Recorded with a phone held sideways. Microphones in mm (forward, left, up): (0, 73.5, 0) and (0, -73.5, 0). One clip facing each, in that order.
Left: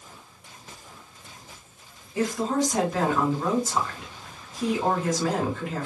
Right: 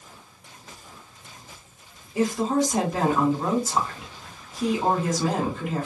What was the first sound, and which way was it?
A woman speaking, 20° right (ahead or behind).